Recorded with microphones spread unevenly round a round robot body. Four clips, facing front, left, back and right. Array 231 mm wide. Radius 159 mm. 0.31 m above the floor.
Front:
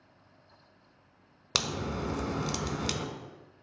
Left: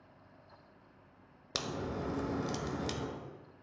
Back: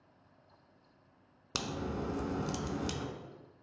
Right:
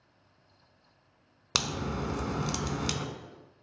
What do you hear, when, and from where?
1.6 s a crack: 35° right, 1.1 m